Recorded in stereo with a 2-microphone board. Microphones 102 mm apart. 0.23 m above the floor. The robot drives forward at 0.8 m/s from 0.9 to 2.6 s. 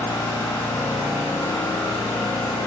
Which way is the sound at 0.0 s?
65° left (ahead or behind).